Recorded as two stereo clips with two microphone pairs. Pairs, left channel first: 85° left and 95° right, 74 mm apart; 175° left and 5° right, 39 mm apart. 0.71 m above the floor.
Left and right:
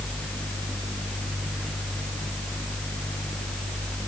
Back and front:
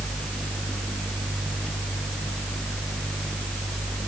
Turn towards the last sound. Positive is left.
No sound to turn to.